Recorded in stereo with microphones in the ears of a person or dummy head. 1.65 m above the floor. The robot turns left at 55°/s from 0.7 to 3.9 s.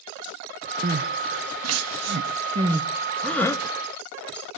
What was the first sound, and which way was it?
Crying, 45° right (ahead or behind).